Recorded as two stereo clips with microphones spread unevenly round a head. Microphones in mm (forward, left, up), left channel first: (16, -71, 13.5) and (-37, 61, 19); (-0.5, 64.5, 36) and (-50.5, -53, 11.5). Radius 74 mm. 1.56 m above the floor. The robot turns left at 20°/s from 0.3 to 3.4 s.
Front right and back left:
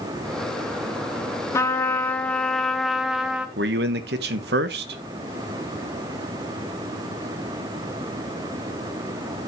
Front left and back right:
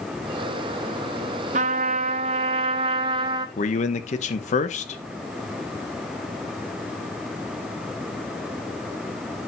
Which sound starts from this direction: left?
A man speaking, at 3.6 s.